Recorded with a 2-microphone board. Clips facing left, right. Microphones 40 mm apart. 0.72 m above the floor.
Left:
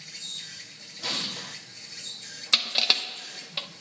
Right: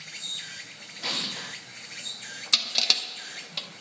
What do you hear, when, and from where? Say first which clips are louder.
0.0 s an insect: right 3 dB; 45° right (ahead or behind), 0.8 m
1.0 s an explosion: right 1 dB; 5° right (ahead or behind), 0.8 m
2.5 s crushing: left 2 dB; 20° left (ahead or behind), 0.6 m